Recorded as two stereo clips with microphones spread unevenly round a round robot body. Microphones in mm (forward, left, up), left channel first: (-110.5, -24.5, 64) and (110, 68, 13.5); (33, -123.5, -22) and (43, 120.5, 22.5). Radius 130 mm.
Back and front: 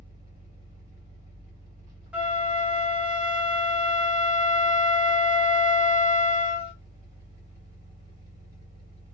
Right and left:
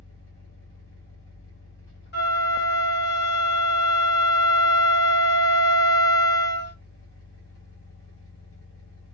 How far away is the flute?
About 1.3 m.